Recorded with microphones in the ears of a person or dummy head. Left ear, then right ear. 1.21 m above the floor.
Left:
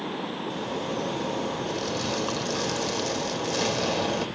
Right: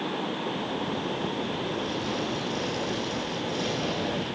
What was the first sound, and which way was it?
A zipper, 80° left.